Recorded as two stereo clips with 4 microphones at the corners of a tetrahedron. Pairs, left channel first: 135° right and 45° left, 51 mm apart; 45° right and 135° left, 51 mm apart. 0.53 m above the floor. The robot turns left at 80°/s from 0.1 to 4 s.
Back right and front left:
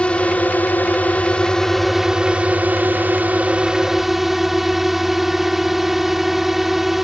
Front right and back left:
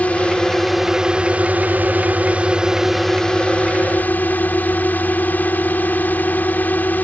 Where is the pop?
No pop in this recording.